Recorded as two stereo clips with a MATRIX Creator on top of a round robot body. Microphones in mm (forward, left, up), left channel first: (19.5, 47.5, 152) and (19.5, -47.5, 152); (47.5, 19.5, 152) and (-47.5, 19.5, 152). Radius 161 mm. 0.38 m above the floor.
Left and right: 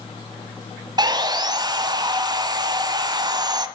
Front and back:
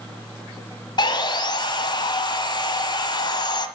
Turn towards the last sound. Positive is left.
turn(degrees=-45)